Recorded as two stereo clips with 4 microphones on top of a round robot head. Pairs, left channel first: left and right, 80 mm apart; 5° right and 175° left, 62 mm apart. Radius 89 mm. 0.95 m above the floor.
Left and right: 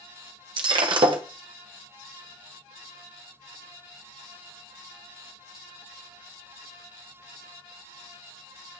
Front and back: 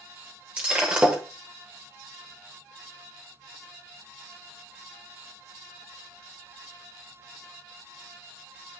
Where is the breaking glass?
110° right, 1.2 m.